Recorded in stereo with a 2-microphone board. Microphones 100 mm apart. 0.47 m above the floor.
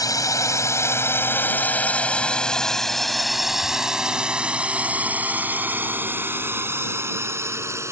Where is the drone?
35° left (ahead or behind); by 7.9 s 30° right (ahead or behind).